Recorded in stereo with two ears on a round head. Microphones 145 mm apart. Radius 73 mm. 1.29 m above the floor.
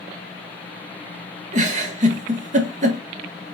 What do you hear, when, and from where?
1.5 s a giggle: 50° right (ahead or behind), 1.7 m